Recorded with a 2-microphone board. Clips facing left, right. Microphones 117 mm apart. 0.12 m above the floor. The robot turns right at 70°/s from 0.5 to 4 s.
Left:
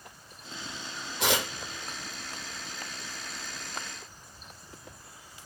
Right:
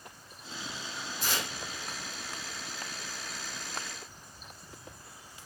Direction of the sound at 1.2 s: 70° left (ahead or behind).